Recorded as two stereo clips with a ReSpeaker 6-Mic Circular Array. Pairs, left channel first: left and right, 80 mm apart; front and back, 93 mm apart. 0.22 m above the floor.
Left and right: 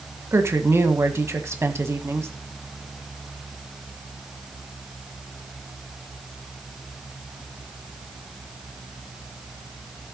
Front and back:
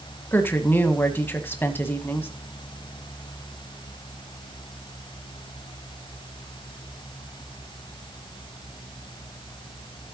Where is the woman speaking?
55° right, 1.4 m.